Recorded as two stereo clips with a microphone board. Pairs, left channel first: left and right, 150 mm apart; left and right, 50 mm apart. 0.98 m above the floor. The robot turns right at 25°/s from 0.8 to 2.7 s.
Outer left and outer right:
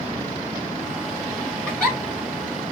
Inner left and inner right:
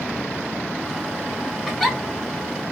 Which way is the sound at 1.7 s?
5° left (ahead or behind).